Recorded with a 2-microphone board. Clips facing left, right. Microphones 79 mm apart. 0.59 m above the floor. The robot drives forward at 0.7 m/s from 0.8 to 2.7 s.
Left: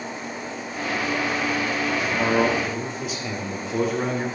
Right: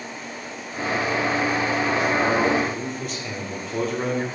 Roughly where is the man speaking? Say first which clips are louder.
Left 2 dB; centre.